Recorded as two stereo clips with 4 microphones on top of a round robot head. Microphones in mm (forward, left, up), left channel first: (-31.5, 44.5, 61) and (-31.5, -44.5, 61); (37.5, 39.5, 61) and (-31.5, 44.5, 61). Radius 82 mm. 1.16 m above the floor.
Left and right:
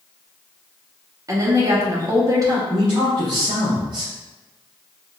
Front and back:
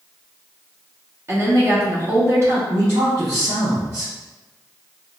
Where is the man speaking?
130° right, 0.8 m.